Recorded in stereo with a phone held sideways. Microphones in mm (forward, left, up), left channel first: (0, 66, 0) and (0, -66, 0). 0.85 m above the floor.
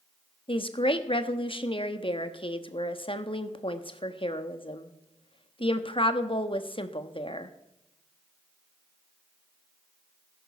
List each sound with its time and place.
0.5 s a woman speaking: 40° left (ahead or behind), 1.1 m